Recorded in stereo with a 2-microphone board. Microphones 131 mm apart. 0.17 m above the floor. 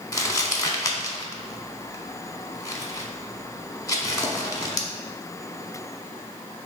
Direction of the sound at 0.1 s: 25° left (ahead or behind).